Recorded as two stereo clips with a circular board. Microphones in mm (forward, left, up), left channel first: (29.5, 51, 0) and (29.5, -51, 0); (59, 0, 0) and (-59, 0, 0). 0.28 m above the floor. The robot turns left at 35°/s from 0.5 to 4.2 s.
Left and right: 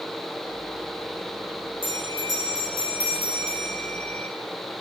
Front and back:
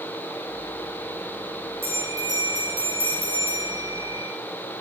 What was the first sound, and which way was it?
A bell, 110° right.